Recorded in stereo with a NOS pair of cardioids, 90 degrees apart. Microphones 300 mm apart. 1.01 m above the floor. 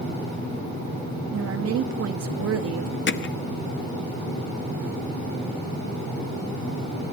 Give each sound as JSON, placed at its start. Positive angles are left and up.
{"t": 1.3, "sound": "a woman speaking", "azimuth_deg": -55, "distance_m": 1.9}
{"t": 3.1, "sound": "hammering", "azimuth_deg": 40, "distance_m": 1.1}